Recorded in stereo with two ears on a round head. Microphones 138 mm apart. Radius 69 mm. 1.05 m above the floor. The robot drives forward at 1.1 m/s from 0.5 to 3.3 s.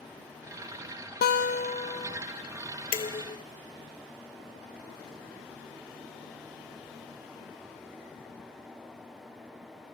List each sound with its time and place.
1.2 s a guitar: 60° left (ahead or behind); by 2.2 s 30° left (ahead or behind)
2.9 s dishes clattering: 35° left (ahead or behind); by 3.4 s 30° left (ahead or behind)